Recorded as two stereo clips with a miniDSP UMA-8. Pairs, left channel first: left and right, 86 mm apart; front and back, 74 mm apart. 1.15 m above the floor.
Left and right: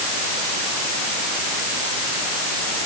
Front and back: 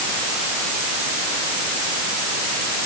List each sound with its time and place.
Only background noise.